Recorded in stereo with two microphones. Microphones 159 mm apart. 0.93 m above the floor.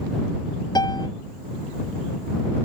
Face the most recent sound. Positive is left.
turn(degrees=25)  # may be behind; listen again after turning